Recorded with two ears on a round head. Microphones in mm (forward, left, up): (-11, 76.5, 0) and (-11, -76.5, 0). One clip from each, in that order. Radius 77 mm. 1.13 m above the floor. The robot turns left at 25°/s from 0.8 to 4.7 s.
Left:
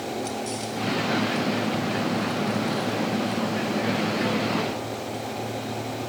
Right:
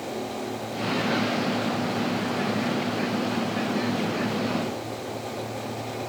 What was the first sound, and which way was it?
Only background noise.